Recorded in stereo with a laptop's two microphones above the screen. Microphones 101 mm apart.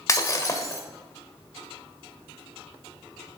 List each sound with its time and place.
0.1 s breaking glass: 30° left (ahead or behind), 1.5 m